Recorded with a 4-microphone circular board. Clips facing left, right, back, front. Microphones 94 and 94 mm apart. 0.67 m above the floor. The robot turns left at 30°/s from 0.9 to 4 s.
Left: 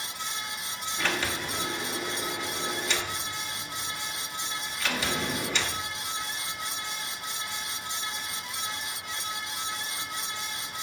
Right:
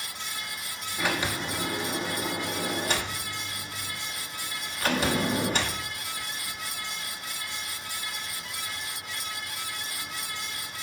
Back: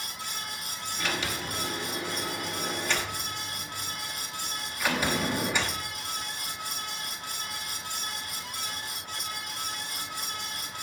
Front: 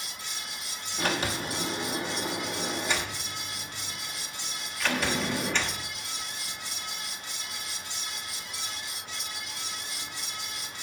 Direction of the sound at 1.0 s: 15° right.